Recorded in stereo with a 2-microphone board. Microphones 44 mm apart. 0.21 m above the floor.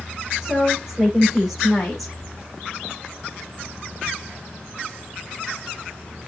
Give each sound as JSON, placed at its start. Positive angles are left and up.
{"t": 0.4, "sound": "a woman speaking", "side_deg": -10, "distance_m": 9.5}